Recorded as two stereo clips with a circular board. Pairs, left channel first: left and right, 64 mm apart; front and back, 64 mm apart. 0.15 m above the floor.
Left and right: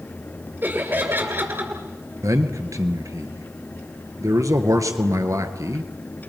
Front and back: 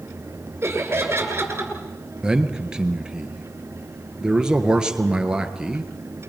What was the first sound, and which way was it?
Laughter, 140° right.